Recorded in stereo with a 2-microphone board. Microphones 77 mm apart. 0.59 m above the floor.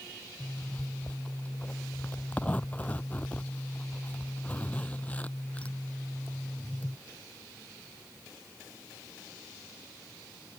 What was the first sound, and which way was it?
A zipper, 20° left (ahead or behind).